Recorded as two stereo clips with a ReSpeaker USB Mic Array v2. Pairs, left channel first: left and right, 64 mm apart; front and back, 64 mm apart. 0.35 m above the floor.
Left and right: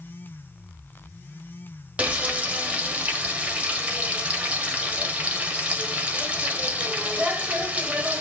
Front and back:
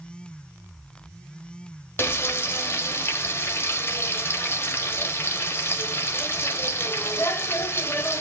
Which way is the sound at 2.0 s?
25° right.